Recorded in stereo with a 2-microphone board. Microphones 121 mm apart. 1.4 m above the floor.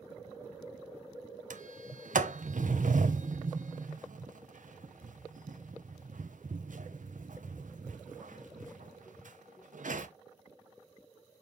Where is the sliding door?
85° right, 0.9 m.